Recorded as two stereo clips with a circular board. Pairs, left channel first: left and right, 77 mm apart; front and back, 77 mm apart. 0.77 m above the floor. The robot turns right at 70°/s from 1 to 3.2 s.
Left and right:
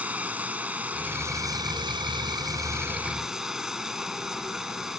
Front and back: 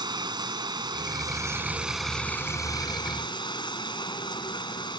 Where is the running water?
160° right; by 5.0 s 5° right.